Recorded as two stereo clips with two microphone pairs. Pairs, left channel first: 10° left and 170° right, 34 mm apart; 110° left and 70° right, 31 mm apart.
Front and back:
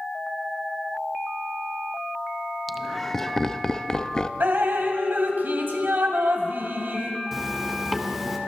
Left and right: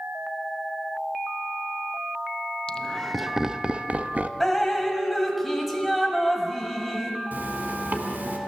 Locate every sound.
2.7 s laughter: 105° left, 0.6 m; by 4.3 s 50° right, 0.9 m
4.4 s dripping: 160° right, 2.0 m
7.3 s a zipper: 85° right, 2.5 m